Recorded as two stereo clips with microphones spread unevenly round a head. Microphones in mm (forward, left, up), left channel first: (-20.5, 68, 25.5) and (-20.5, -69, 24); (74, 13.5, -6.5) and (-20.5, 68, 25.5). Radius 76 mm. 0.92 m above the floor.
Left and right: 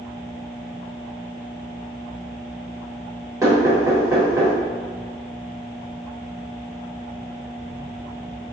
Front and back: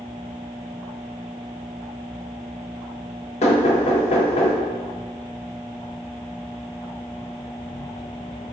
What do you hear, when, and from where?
3.4 s knocking: 20° right, 0.9 m